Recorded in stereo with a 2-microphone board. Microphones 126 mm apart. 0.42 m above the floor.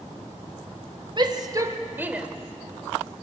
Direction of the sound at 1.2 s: 40° right (ahead or behind).